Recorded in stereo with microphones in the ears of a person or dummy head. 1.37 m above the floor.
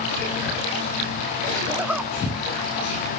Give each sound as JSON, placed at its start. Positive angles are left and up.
{"t": 1.7, "sound": "a zipper", "side_deg": -10}